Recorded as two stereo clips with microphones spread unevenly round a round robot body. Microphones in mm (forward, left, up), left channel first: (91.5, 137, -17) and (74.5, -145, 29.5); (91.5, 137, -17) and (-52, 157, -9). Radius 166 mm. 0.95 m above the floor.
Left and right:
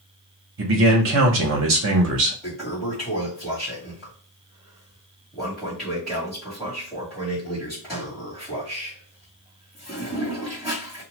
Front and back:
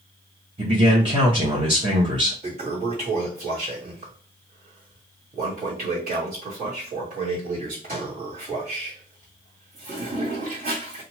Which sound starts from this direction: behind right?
A man speaking, at 0.6 s.